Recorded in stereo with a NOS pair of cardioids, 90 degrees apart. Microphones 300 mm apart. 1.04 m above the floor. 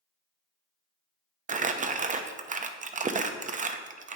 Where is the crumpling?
25° right, 0.6 m.